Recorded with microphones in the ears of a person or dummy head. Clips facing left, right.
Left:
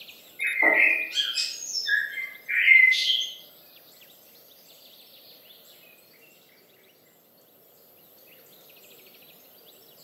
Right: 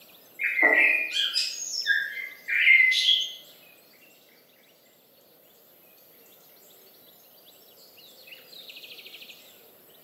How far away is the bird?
About 0.5 m.